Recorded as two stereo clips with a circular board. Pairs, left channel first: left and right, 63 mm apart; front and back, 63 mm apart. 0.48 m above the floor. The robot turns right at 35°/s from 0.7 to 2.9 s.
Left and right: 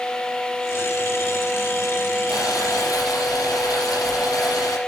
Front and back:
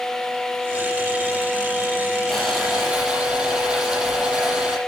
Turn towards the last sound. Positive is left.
turn(degrees=110)